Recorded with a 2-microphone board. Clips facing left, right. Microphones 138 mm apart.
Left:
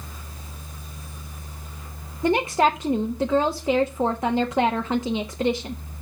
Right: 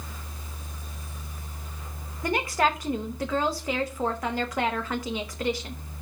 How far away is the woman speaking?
About 0.8 m.